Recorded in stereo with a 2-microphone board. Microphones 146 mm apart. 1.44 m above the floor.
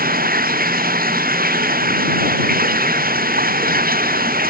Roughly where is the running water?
Right.